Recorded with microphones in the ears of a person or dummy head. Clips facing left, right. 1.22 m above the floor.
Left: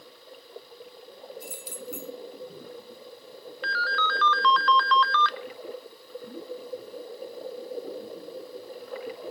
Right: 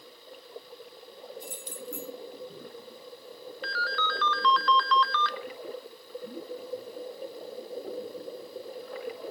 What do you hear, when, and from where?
1.4 s keys jangling: 10° left (ahead or behind), 2 m
3.6 s a ringtone: 60° left (ahead or behind), 0.6 m